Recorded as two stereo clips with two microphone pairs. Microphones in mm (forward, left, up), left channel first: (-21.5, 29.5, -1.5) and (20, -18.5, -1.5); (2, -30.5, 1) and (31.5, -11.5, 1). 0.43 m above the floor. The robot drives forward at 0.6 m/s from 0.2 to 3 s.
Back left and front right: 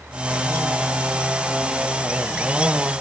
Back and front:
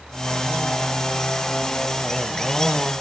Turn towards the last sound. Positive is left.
No sound to turn to.